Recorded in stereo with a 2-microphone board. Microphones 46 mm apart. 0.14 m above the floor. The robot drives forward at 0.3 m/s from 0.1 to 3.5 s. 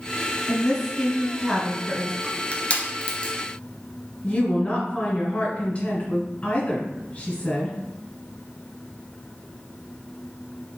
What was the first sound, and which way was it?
A woman speaking, centre (ahead or behind).